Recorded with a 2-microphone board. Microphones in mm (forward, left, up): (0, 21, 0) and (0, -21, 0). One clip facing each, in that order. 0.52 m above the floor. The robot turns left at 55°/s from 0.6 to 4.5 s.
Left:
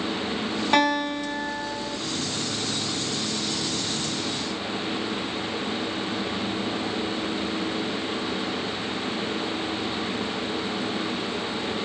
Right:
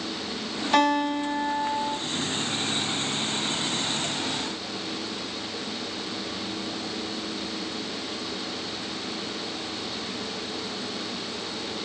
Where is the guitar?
60° left, 1.7 m; by 2.0 s 10° right, 1.7 m.